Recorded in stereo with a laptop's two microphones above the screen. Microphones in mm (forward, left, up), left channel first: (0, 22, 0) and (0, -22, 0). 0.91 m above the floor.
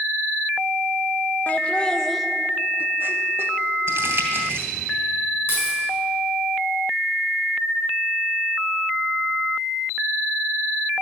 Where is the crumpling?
65° right (ahead or behind), 2.5 m.